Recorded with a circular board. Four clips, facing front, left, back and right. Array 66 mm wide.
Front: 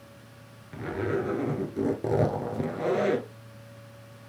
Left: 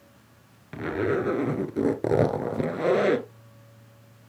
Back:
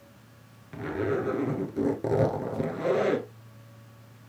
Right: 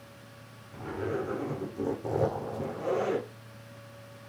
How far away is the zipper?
About 1.0 m.